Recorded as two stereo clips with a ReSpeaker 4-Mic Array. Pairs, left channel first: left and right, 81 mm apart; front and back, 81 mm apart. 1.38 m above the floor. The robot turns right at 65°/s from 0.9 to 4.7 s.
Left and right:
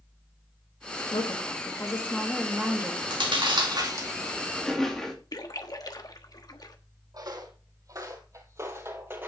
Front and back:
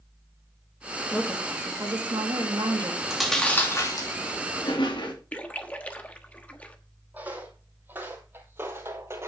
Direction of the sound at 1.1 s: 95° left.